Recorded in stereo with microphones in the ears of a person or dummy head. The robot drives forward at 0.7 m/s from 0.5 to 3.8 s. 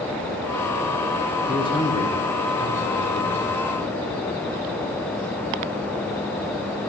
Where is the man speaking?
25° left (ahead or behind), 1.3 m; by 3.7 s 10° left (ahead or behind), 3 m.